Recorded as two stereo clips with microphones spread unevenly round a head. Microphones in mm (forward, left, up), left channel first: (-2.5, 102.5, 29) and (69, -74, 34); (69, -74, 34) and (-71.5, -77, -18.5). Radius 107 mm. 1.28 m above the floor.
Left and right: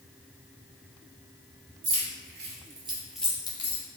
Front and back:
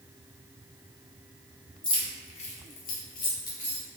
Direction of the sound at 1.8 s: 55° right.